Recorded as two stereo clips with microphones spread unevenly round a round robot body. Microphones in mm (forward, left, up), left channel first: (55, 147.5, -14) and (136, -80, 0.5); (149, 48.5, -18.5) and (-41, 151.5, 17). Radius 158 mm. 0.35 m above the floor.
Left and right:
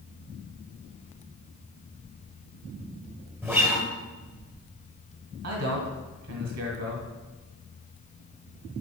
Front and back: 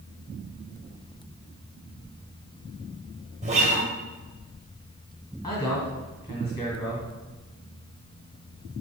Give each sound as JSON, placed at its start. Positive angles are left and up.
{"t": 3.4, "sound": "a guitar", "azimuth_deg": -150, "distance_m": 1.5}
{"t": 5.4, "sound": "a man speaking", "azimuth_deg": -100, "distance_m": 1.9}